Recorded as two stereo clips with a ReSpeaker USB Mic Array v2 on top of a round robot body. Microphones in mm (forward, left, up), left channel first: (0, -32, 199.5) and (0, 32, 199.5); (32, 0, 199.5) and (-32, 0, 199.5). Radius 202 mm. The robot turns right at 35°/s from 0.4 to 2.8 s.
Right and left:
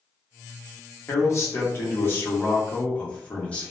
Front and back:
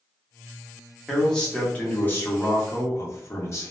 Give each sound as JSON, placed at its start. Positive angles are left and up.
{"t": 1.1, "sound": "a man speaking", "azimuth_deg": -85, "distance_m": 1.2}